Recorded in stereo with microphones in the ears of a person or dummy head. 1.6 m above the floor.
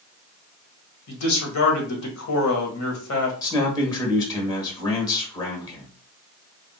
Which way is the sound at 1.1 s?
80° left.